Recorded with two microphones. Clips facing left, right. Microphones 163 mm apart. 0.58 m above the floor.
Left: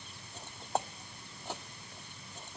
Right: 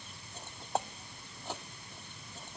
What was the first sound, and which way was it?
Only background noise.